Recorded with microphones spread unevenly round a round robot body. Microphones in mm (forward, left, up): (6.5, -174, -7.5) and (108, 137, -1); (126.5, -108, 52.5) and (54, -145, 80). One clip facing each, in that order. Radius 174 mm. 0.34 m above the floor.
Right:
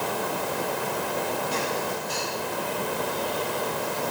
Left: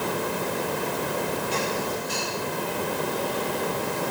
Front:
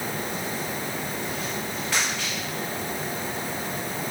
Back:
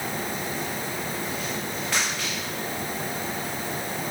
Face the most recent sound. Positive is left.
No sound to turn to.